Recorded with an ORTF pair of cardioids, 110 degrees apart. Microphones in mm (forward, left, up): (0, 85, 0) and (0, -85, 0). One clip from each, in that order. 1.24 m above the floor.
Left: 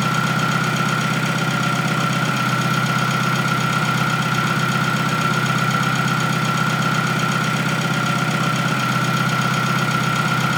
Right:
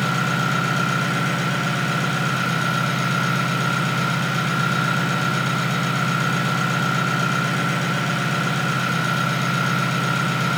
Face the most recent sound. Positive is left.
turn(degrees=40)